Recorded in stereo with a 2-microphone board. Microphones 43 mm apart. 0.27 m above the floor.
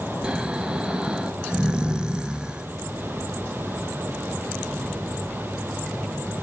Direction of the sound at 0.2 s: 20° right (ahead or behind).